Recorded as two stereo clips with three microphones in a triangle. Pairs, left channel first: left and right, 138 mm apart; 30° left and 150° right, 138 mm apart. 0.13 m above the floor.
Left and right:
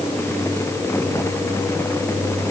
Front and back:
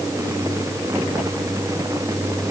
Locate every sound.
Only background noise.